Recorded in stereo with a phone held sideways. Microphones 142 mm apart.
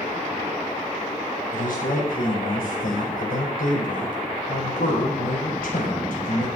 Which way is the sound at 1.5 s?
80° left.